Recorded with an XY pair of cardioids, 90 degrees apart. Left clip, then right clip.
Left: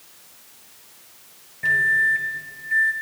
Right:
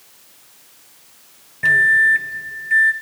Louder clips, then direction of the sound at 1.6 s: Right 6 dB; 55° right.